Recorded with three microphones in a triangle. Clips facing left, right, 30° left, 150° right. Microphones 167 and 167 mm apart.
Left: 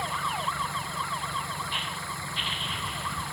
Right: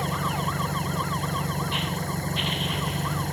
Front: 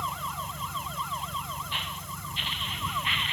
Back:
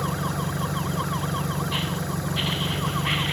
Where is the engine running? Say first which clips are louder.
Right 4 dB, back 9 dB; 140° right.